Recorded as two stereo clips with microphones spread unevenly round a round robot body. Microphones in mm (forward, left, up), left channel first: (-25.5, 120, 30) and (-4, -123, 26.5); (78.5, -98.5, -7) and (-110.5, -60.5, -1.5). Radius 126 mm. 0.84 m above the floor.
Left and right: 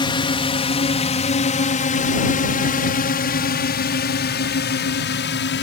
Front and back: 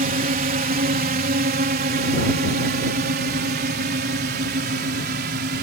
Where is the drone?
155° left; by 5.6 s 130° left.